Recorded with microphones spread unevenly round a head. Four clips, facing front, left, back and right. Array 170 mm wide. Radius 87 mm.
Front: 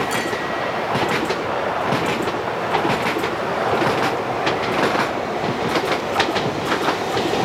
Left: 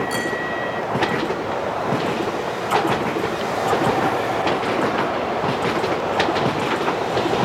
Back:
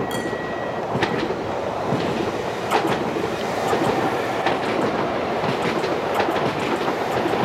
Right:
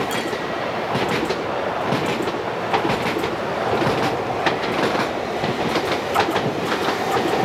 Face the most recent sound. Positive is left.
turn(degrees=-90)